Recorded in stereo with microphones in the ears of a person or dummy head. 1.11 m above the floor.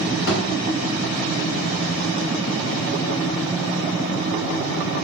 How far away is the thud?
About 1.9 m.